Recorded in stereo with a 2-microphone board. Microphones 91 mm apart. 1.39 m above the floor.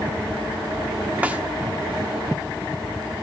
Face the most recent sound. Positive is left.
turn(degrees=-15)  # may be behind; listen again after turning